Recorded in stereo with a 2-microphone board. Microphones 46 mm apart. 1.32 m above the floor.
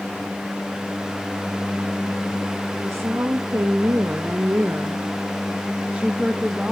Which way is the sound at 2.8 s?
70° right (ahead or behind).